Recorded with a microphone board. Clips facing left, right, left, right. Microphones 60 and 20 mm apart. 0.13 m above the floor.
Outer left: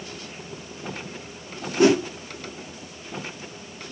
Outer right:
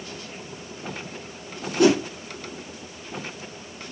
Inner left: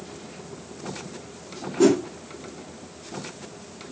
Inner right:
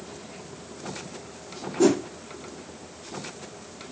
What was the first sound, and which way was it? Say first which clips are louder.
A whoosh: even, inner left 2 dB; 15° left (ahead or behind).